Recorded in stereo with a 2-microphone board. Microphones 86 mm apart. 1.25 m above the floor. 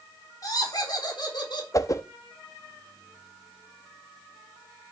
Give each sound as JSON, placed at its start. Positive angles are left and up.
{"t": 0.4, "sound": "laughter", "side_deg": 45, "distance_m": 4.0}
{"t": 1.7, "sound": "a whoosh", "side_deg": 40, "distance_m": 0.7}